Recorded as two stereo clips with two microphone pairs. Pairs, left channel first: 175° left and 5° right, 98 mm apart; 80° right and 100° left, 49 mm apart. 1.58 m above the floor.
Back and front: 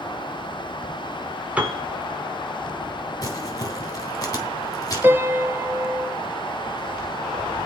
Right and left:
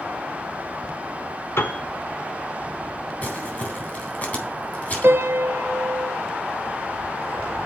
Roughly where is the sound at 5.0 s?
Ahead left.